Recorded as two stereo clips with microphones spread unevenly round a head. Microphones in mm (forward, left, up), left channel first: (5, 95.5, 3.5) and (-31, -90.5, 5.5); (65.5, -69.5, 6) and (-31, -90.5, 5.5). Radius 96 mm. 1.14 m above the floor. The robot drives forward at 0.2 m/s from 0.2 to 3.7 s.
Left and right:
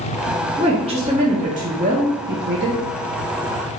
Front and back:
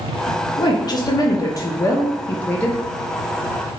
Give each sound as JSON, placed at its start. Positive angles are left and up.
{"t": 0.6, "sound": "a woman speaking", "azimuth_deg": -35, "distance_m": 0.8}